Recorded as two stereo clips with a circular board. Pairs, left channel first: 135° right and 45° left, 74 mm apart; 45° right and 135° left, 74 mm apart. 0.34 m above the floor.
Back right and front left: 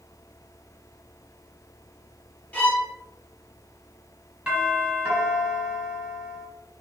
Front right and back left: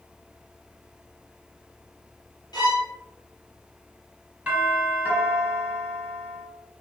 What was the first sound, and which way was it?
A violin, 65° right.